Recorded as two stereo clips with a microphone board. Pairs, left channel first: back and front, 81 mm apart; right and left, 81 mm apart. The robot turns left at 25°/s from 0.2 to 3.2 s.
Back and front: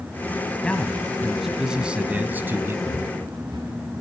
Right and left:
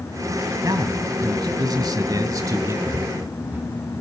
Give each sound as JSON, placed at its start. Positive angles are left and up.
{"t": 0.6, "sound": "a man speaking", "azimuth_deg": 105, "distance_m": 1.6}
{"t": 2.9, "sound": "footsteps", "azimuth_deg": 30, "distance_m": 4.5}